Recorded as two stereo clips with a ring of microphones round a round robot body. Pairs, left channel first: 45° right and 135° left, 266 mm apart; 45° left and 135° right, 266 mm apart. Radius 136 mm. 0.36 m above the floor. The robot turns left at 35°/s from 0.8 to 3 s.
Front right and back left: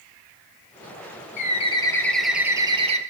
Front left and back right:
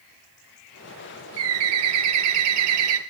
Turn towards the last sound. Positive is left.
turn(degrees=-160)